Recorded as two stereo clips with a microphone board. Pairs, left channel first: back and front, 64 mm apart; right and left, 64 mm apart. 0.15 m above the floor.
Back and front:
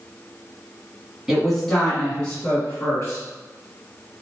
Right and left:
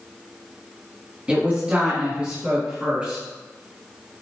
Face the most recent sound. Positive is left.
turn(degrees=150)